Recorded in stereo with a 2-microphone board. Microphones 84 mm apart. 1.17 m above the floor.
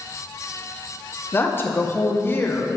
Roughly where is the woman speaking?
Left.